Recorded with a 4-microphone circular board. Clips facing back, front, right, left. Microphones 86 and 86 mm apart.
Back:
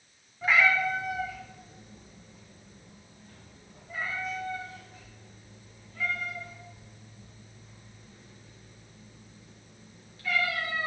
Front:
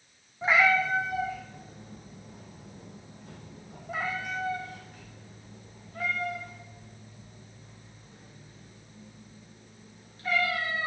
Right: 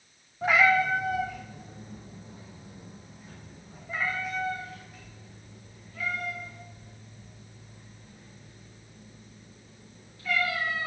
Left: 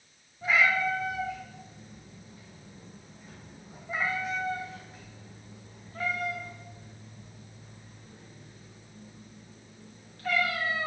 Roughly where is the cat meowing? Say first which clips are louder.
Front 1 dB, right 3 dB; ahead right.